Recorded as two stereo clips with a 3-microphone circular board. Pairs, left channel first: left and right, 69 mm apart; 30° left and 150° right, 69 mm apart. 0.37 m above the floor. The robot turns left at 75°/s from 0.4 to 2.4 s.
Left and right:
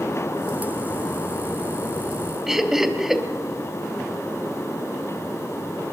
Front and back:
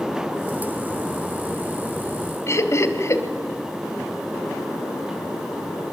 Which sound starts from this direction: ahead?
Laughter, at 2.5 s.